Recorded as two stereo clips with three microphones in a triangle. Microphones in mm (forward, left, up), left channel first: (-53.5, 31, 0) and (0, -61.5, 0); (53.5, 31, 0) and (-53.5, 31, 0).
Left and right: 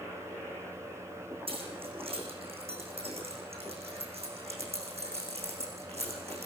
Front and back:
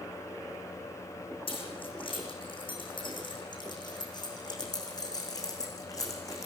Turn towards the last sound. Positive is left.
turn(degrees=-60)